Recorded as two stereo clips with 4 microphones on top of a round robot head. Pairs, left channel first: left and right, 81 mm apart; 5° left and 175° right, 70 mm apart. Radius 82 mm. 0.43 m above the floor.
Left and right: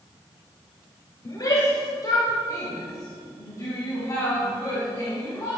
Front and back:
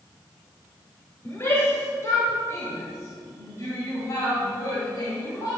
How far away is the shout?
About 2.5 m.